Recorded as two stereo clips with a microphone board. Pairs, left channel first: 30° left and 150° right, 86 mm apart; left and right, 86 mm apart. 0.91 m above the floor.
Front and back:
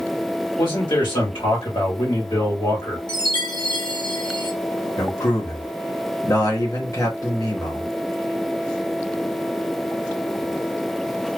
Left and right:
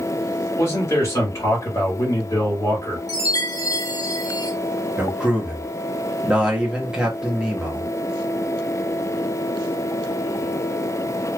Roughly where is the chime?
Ahead left.